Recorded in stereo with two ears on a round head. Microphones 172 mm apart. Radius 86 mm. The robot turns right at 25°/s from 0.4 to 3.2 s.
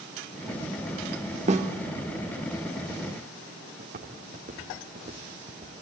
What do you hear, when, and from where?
1.5 s a snare drum: 35° right (ahead or behind), 1.3 m; by 1.7 s 40° right (ahead or behind), 1.3 m
3.8 s footsteps: 45° right (ahead or behind), 3.5 m; by 5.7 s 25° right (ahead or behind), 4 m